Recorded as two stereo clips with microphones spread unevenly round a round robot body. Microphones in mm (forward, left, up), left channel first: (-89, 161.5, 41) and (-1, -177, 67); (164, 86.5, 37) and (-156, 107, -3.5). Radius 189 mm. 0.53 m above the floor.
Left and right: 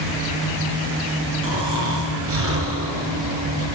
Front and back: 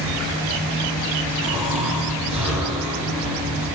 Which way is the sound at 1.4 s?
125° right.